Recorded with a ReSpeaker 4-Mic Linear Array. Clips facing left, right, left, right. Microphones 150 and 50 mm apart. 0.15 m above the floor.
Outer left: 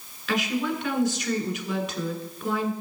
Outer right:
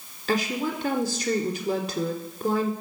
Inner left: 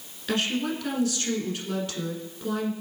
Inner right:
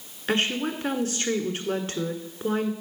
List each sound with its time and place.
0.3 s a woman speaking: 35° right (ahead or behind), 1.5 m